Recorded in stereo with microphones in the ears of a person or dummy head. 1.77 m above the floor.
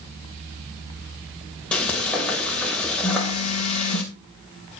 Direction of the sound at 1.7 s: 5° left (ahead or behind).